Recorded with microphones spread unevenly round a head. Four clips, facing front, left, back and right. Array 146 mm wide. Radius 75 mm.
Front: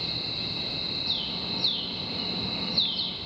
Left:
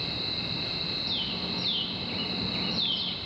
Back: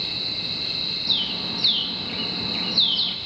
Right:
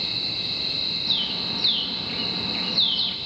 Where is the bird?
160° right, 0.8 m.